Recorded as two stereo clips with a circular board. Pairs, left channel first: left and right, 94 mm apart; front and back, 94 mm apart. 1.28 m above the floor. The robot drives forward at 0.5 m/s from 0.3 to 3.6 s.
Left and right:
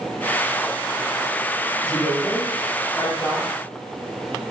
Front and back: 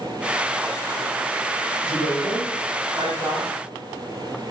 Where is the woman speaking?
145° left, 2.5 m; by 3.5 s 155° left, 3 m.